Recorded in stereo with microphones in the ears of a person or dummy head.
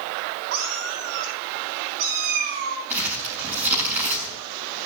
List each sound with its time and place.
0.5 s a cat meowing: 65° right (ahead or behind), 4.5 m; by 2.8 s 45° right (ahead or behind), 6 m
2.9 s crumpling: 10° right (ahead or behind), 4.5 m